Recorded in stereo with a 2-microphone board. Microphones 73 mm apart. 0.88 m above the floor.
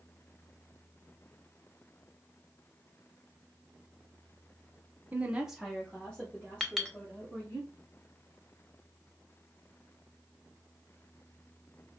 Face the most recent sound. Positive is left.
turn(degrees=5)  # may be behind; listen again after turning